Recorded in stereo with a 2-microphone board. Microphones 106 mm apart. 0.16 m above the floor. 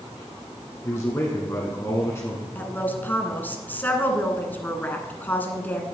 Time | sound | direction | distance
0.8 | a man speaking | 25° left (ahead or behind) | 1.4 m
2.5 | a woman speaking | 15° left (ahead or behind) | 1.4 m